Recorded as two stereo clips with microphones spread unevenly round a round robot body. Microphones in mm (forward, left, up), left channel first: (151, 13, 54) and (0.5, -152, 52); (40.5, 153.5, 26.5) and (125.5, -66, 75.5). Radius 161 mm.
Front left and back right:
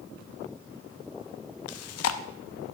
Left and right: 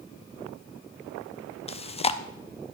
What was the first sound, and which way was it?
Chewing, 45° left.